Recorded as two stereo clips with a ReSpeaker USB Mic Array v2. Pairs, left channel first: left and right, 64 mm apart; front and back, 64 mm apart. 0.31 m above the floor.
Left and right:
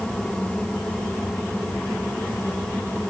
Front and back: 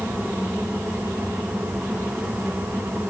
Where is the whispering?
I don't hear whispering.